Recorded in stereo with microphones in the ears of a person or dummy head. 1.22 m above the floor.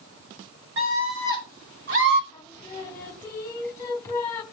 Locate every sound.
0.8 s a scream: 70° right (ahead or behind), 7.5 m; by 2.2 s 60° right (ahead or behind), 7 m
2.3 s singing: 20° left (ahead or behind), 1.6 m